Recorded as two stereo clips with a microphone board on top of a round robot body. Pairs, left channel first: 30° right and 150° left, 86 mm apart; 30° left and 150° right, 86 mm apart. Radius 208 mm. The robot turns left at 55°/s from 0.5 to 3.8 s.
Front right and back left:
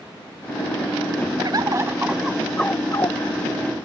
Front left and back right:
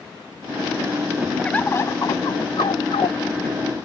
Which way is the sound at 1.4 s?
110° left.